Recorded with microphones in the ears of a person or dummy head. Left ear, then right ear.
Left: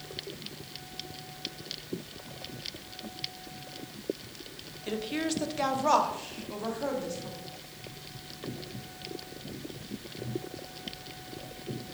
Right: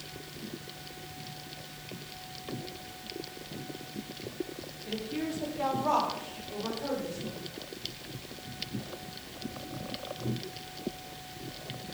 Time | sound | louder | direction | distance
4.9 | a woman speaking | left 3 dB | 35° left (ahead or behind) | 0.5 m